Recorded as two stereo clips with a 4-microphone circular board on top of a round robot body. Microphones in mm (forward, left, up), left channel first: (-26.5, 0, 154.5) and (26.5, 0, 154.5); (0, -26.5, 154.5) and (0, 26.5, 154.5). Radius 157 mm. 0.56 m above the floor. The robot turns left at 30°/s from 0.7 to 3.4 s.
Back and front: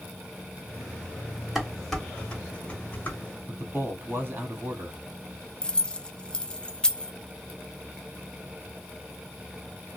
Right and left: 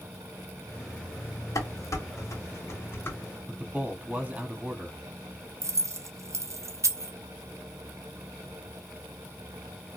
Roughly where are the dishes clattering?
Right.